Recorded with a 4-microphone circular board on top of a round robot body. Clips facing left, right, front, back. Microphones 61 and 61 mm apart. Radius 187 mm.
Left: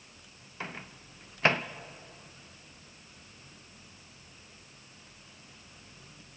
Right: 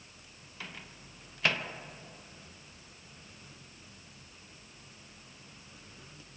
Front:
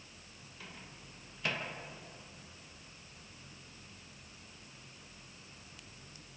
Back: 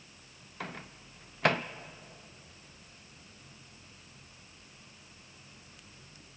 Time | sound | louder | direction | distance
0.6 | a microwave | left 5 dB, back 10 dB | 150° left | 0.7 m